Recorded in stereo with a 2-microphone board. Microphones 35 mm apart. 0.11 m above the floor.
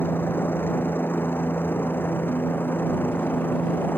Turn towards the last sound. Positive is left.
turn(degrees=65)  # may be behind; listen again after turning